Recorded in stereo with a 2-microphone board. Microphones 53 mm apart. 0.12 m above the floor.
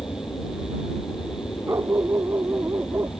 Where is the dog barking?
60° right (ahead or behind).